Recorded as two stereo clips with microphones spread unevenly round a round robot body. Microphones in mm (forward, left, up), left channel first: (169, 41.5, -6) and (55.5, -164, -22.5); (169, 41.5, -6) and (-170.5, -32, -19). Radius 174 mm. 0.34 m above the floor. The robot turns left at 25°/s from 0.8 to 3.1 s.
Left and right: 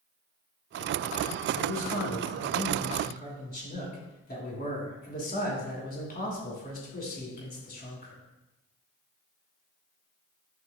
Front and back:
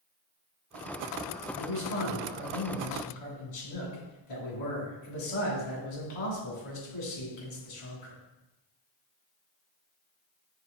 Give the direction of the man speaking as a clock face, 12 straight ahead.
10 o'clock.